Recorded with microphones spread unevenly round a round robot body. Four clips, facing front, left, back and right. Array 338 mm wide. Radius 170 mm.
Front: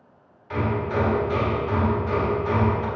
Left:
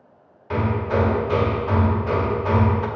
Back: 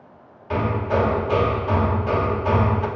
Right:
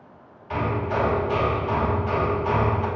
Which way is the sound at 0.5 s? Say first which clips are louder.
Left 3 dB, back 3 dB; 140° left.